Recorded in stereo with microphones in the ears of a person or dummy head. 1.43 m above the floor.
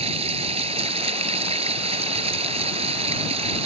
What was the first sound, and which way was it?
Running water, 35° right (ahead or behind).